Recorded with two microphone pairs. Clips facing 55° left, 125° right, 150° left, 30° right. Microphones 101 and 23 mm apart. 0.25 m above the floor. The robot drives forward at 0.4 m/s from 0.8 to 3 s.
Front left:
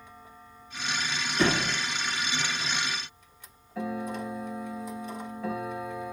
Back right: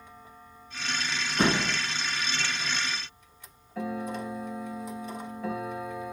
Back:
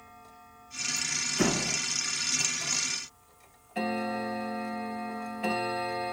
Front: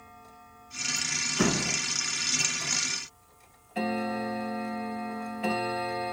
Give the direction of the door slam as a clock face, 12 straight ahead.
3 o'clock.